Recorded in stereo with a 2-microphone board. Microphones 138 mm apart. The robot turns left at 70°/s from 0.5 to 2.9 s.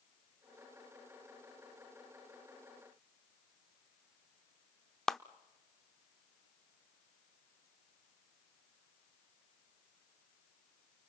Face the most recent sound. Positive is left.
turn(degrees=0)  # may be behind; listen again after turning